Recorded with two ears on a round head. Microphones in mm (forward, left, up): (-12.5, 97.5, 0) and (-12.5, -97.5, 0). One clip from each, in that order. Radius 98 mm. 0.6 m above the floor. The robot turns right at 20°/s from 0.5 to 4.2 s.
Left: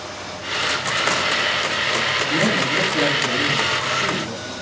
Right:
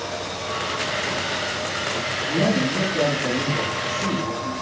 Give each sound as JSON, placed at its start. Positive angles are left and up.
{"t": 2.2, "sound": "a man speaking", "azimuth_deg": 40, "distance_m": 9.0}